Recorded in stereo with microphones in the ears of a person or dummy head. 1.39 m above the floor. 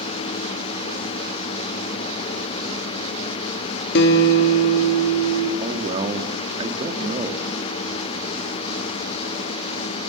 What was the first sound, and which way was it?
A guitar, 65° left (ahead or behind).